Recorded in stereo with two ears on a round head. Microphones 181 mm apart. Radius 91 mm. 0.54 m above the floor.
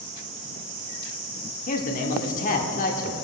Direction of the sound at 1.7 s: 40° left (ahead or behind).